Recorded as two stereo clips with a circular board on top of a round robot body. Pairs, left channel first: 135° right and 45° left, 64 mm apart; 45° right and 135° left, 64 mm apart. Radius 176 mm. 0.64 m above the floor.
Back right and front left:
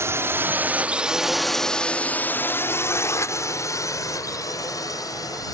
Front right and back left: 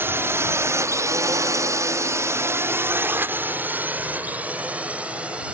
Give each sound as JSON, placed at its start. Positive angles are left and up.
{"t": 0.0, "sound": "a drone", "azimuth_deg": 85}